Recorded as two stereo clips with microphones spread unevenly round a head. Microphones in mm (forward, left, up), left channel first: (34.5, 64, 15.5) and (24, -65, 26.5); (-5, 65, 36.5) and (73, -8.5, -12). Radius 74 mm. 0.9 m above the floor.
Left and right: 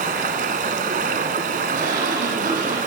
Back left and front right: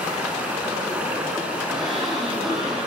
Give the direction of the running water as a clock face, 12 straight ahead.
4 o'clock.